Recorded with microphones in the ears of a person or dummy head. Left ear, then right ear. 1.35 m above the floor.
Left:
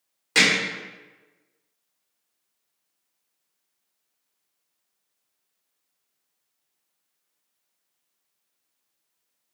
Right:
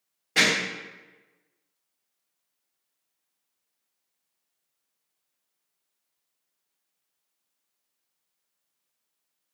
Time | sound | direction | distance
0.3 | hammering | 50° left (ahead or behind) | 1.6 m